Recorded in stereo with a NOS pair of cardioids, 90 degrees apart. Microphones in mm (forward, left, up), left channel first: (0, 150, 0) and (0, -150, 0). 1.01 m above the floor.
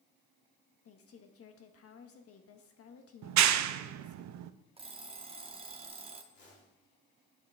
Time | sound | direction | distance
0.8 | a woman speaking | 55° left | 1.2 m
3.2 | a clap | 70° right | 0.6 m
4.8 | an alarm clock | 20° right | 1.0 m
6.3 | a whoosh | 40° left | 3 m